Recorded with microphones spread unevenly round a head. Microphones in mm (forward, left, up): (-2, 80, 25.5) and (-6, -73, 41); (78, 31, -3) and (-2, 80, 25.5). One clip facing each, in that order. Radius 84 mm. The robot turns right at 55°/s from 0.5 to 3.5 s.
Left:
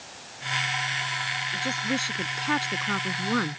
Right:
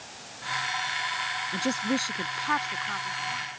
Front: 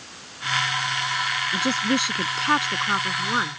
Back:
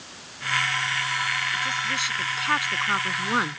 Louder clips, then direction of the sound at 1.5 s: Right 2 dB, front 6 dB; 30° right.